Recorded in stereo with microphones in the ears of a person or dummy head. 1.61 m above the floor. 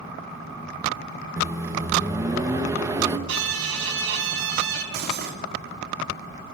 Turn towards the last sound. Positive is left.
turn(degrees=-50)  # may be behind; listen again after turning